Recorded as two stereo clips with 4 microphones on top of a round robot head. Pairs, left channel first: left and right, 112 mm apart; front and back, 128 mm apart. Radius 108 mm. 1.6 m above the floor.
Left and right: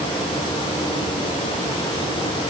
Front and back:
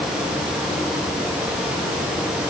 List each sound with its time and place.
Only background noise.